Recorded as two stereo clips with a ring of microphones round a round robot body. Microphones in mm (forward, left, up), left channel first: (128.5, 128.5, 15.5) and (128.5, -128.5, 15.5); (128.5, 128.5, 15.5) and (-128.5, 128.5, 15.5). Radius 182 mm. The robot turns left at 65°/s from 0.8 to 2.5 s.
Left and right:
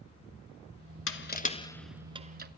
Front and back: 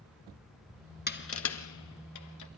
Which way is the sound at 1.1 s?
55° left.